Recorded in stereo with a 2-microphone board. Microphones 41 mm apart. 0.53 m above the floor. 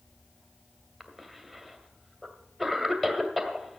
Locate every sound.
1.0 s a cough: centre (ahead or behind), 2 m